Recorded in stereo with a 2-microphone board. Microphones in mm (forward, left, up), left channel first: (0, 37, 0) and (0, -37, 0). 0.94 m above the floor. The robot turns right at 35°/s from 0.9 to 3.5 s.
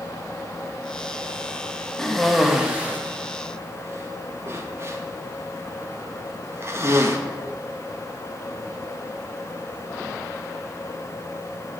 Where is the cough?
10° left (ahead or behind), 1.4 m; by 7.2 s 35° right (ahead or behind), 1.4 m.